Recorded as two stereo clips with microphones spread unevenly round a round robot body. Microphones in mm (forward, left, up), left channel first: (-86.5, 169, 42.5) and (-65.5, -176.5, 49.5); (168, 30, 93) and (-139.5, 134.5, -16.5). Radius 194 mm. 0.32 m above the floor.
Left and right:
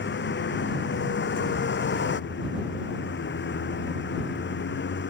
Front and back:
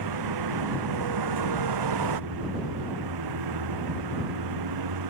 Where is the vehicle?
150° left.